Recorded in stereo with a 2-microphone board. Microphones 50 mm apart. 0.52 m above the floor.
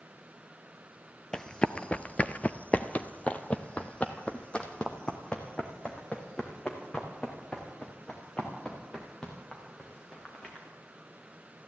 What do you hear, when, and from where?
1.3 s running footsteps: 15° left (ahead or behind), 0.6 m